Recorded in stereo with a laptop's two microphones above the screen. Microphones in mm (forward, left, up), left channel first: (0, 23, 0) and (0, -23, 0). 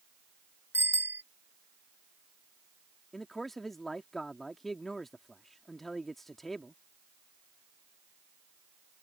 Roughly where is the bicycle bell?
Right.